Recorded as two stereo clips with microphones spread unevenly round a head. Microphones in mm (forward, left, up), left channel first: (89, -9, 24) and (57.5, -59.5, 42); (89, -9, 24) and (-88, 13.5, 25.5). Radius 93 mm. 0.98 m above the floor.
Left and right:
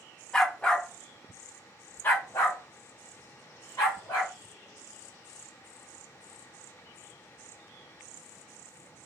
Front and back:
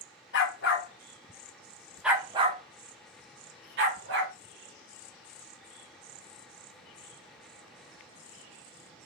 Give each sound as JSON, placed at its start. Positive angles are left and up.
{"t": 0.3, "sound": "a dog barking", "azimuth_deg": -30, "distance_m": 0.9}